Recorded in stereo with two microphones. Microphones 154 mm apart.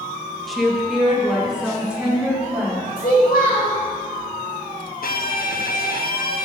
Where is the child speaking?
85° left, 2.5 m.